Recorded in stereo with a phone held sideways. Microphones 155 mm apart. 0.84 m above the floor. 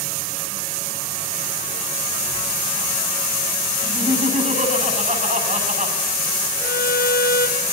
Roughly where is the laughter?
Right.